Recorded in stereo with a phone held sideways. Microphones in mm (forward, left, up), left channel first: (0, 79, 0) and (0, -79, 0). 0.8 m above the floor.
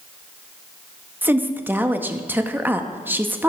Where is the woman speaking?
10° right (ahead or behind), 0.8 m.